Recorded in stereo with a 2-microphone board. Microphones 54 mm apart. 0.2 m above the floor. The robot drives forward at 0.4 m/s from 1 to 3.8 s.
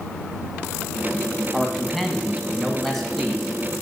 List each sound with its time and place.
1.5 s a man speaking: 5° left (ahead or behind), 1.1 m; by 3.5 s centre (ahead or behind), 1.6 m